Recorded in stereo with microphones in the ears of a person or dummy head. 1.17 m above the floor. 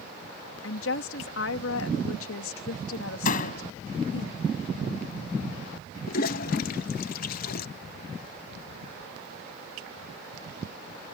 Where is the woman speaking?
70° left (ahead or behind).